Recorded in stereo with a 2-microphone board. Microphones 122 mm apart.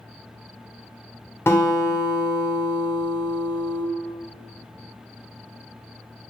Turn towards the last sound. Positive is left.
turn(degrees=20)  # may be behind; listen again after turning